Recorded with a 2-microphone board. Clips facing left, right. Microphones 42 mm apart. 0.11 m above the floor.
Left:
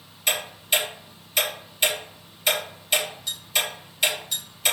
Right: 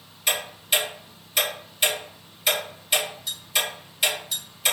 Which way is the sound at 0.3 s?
10° right (ahead or behind).